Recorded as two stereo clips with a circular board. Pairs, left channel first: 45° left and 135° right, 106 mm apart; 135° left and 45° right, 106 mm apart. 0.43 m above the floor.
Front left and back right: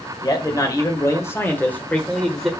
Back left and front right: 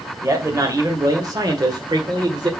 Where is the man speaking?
5° left, 2.0 m; by 2.5 s 45° right, 1.6 m.